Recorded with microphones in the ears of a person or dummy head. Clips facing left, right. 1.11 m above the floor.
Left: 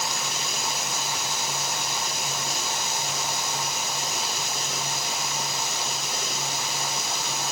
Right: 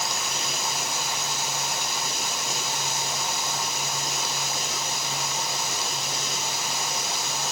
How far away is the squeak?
No squeak in this recording.